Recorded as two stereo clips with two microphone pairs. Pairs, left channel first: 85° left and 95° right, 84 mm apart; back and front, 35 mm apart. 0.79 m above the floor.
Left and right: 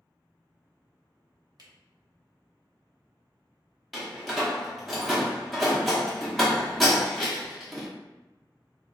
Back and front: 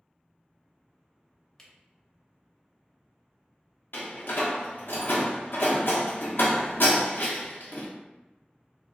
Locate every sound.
1.6 s a camera shutter: 110° right, 0.7 m
3.9 s a door slam: 175° left, 0.8 m